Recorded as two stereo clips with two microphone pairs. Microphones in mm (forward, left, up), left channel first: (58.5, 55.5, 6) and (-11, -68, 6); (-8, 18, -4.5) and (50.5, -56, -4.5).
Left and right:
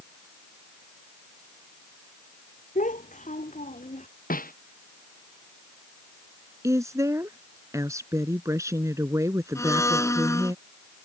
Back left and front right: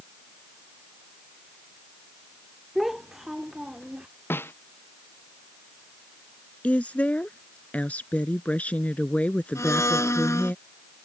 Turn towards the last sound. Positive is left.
turn(degrees=110)